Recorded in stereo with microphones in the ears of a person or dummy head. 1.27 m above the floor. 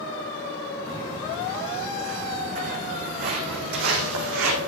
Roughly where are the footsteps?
Centre.